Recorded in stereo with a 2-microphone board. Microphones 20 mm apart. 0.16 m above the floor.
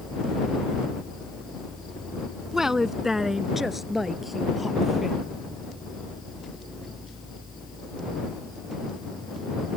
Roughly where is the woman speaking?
Right.